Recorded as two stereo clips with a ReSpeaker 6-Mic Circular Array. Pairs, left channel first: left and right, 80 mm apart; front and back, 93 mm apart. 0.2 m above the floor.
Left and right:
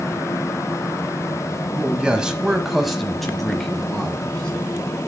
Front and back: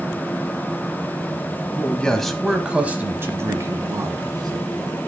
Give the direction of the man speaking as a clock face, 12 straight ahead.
1 o'clock.